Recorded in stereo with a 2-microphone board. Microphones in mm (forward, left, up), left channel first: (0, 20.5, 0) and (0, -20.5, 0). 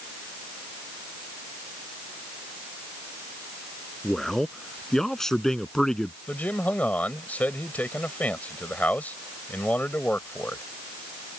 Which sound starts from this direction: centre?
A man speaking, at 4.0 s.